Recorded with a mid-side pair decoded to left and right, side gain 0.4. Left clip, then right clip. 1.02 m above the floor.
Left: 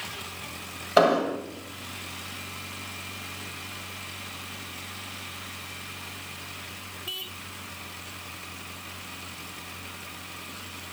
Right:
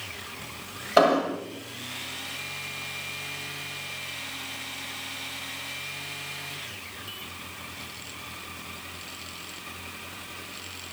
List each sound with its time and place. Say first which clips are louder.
1.0 s an explosion: even; 5° left, 1.9 m